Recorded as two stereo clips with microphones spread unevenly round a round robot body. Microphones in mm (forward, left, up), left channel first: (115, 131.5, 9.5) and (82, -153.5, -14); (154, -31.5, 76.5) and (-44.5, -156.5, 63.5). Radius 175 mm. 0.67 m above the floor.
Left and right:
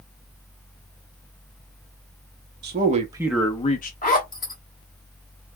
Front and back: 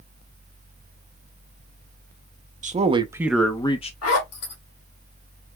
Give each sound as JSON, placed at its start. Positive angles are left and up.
{"t": 2.6, "sound": "a man speaking", "azimuth_deg": -115, "distance_m": 0.8}
{"t": 4.0, "sound": "a zipper", "azimuth_deg": 20, "distance_m": 1.9}